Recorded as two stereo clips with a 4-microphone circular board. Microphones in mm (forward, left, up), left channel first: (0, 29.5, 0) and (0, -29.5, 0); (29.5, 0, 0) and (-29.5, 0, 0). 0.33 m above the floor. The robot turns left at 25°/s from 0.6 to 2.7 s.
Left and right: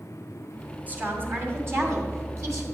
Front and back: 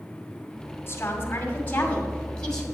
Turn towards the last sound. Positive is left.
turn(degrees=-80)